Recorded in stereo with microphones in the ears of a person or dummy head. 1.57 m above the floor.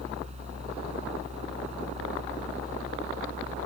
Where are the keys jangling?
No keys jangling in this recording.